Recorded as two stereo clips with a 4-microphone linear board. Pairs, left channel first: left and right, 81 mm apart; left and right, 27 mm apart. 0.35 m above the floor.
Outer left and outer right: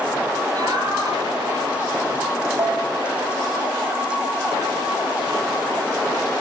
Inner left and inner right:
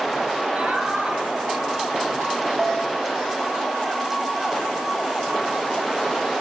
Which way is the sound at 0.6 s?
50° right (ahead or behind).